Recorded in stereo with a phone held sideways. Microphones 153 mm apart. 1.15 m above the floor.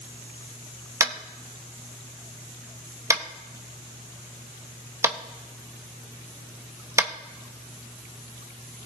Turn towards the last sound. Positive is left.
turn(degrees=-20)  # may be behind; listen again after turning